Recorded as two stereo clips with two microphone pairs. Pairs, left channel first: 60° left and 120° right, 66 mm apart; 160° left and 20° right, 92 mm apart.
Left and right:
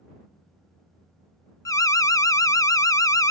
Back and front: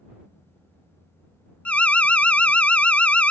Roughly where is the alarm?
Left.